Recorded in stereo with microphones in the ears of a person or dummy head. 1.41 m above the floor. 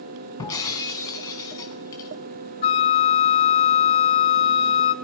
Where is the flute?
30° left (ahead or behind), 1.1 m.